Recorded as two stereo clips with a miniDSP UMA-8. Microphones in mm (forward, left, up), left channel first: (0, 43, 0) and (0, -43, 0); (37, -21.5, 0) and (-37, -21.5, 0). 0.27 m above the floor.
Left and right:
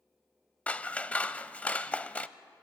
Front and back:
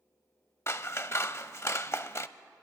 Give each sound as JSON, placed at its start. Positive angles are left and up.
{"t": 0.7, "sound": "scissors", "azimuth_deg": 25, "distance_m": 0.5}